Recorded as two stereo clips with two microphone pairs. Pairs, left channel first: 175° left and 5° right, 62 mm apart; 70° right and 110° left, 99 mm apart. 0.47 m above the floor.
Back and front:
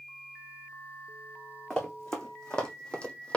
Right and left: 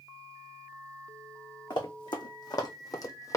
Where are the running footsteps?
105° right, 1.7 m; by 3.4 s 125° right, 0.9 m.